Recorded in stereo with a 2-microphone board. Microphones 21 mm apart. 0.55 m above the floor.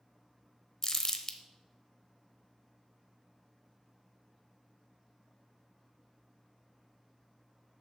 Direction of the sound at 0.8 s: 25° left (ahead or behind).